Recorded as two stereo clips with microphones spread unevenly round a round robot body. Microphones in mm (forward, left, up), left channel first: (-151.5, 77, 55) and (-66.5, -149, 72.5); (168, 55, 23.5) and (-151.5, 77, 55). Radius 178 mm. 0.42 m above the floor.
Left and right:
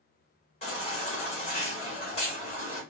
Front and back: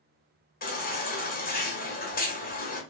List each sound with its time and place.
0.6 s a baby crying: 50° left, 1.7 m